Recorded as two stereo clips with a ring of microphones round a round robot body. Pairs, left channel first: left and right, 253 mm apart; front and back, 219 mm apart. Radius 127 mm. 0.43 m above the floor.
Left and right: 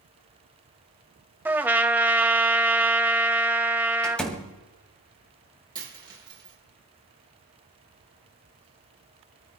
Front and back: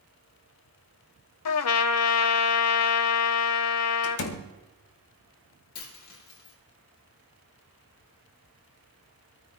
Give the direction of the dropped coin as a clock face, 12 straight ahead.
1 o'clock.